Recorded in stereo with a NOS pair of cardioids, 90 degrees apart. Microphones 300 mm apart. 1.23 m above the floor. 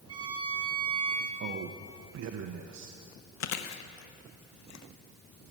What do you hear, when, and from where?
0.1 s a violin: 15° right, 3 m
1.4 s a man speaking: 65° right, 0.9 m
3.4 s chewing: 60° left, 0.9 m